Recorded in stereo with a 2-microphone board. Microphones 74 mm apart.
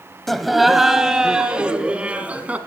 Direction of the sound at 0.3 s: 5° left (ahead or behind).